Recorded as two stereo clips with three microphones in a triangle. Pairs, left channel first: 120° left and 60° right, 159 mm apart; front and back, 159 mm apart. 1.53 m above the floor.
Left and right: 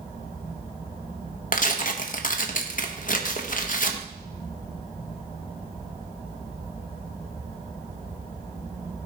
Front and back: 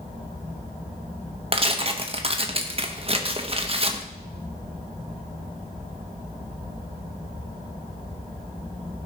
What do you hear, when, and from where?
1.5 s tearing paper: 135° left, 1.2 m